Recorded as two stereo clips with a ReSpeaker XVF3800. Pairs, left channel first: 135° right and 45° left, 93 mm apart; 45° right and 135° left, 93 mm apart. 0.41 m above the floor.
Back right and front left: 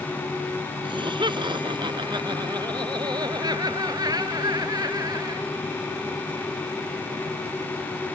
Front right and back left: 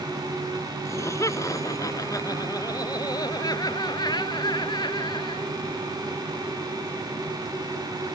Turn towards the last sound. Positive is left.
turn(degrees=-5)